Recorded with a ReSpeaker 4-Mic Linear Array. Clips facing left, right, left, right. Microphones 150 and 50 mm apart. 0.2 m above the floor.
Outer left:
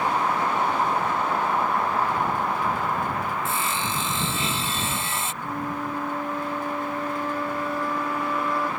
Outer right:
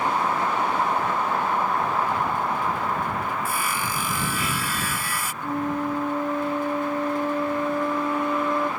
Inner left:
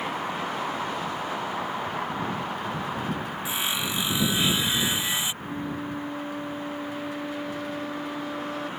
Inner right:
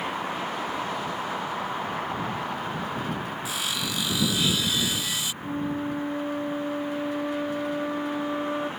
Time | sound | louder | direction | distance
3.5 | sawing | even, inner left 3 dB | 25° left (ahead or behind) | ?
5.4 | a flute | outer right 7 dB, inner right 3 dB | 20° right (ahead or behind) | ?